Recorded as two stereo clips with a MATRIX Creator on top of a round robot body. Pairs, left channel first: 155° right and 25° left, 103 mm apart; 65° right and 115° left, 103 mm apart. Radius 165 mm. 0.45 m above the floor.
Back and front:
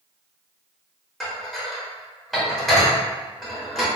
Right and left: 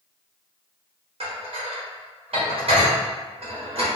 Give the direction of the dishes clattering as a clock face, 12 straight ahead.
8 o'clock.